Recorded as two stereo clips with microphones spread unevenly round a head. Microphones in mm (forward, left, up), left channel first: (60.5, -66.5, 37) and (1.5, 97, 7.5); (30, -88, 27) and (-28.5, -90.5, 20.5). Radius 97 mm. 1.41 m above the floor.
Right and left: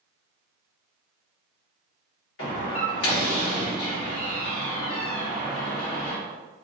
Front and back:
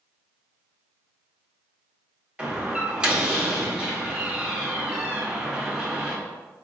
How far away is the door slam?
About 2.0 m.